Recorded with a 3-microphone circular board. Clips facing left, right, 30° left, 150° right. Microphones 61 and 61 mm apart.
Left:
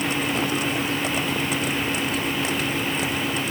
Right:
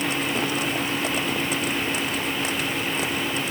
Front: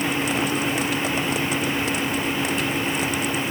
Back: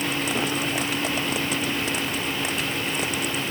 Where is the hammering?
I don't hear hammering.